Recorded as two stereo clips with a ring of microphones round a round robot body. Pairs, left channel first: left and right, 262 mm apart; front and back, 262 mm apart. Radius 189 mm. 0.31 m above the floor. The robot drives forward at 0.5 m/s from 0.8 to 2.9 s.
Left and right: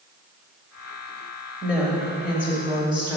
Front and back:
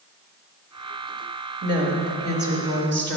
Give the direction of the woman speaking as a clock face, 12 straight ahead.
6 o'clock.